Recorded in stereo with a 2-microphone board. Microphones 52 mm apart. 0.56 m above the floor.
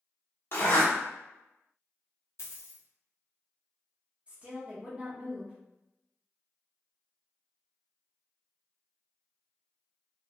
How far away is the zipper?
About 1.1 m.